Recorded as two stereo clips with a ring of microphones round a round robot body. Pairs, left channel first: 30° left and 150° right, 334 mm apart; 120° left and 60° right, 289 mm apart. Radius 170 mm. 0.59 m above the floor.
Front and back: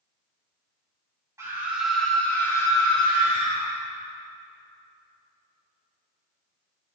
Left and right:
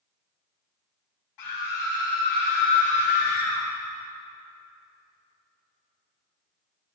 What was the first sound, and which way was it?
A scream, 130° left.